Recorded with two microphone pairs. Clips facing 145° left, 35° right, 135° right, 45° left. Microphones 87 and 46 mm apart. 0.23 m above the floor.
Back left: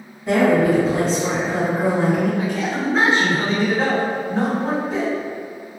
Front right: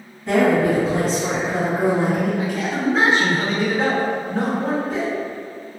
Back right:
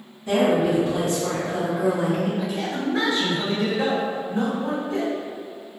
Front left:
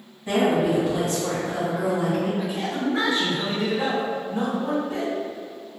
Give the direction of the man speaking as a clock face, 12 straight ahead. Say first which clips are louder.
Even, even; 11 o'clock.